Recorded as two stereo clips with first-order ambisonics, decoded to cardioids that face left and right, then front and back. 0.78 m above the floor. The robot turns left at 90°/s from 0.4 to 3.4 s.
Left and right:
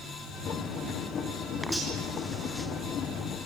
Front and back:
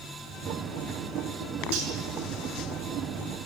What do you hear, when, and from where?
1.7 s cutlery clinking: 175° right, 6.5 m; by 1.9 s 165° left, 6.5 m